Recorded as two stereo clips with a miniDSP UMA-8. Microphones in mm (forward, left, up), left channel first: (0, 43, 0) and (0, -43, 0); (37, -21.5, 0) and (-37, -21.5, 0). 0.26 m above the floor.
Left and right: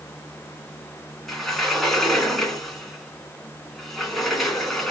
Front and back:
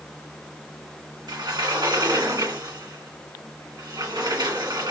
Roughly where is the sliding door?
Behind.